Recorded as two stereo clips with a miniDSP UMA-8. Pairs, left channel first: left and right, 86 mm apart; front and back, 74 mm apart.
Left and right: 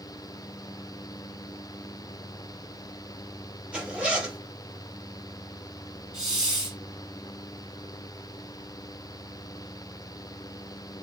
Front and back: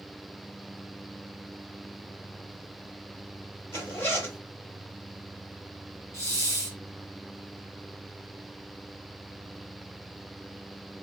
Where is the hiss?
10° right, 1.4 m.